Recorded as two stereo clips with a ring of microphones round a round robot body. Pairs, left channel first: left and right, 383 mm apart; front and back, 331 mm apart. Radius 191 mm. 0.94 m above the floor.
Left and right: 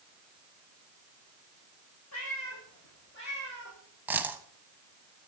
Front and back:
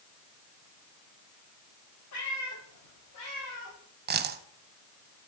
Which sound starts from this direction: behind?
A dropped coin, at 4.1 s.